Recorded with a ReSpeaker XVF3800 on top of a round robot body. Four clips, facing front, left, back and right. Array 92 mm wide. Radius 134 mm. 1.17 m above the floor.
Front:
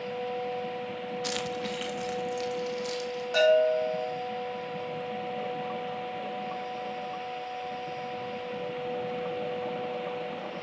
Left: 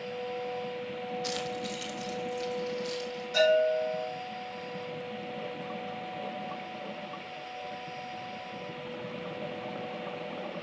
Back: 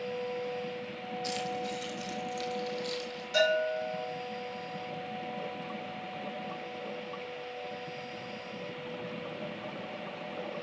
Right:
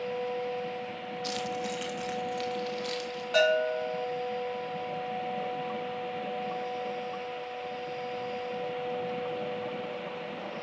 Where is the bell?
55° right, 4.5 m.